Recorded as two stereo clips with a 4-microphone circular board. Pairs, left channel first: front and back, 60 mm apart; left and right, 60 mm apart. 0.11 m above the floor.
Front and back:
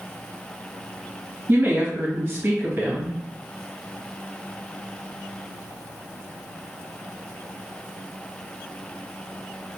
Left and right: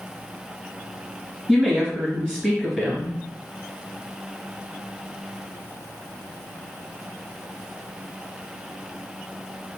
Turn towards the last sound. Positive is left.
turn(degrees=-170)